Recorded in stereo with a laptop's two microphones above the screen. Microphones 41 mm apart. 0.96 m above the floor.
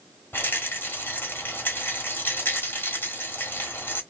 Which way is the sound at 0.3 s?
60° left (ahead or behind).